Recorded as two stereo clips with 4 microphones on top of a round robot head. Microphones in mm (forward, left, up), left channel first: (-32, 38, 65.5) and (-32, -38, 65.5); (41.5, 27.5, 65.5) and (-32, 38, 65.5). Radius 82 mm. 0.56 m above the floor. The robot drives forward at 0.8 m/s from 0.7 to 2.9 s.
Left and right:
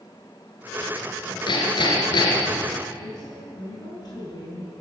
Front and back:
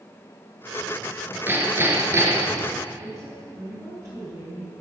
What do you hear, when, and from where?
1.5 s hammering: 110° left, 4.5 m; by 2.6 s 120° left, 4.5 m
3.0 s a woman speaking: 130° left, 10 m